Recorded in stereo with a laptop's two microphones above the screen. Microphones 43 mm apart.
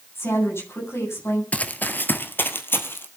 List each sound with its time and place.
0.1 s a woman speaking: 80° left, 9 m
1.5 s running footsteps: 35° left (ahead or behind), 1.4 m; by 3.1 s 60° left (ahead or behind), 2.5 m